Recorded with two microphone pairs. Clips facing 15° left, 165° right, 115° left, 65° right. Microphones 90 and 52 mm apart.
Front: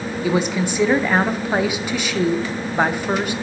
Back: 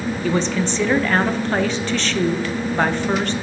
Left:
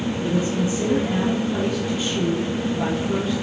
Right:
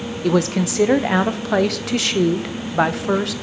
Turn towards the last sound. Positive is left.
turn(degrees=-60)